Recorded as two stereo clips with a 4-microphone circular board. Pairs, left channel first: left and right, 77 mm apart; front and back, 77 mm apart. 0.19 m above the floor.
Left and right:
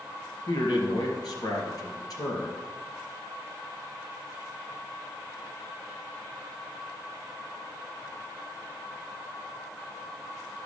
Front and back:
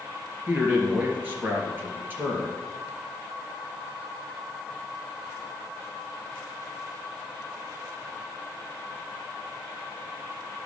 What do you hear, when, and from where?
0.5 s a man speaking: 115° left, 3 m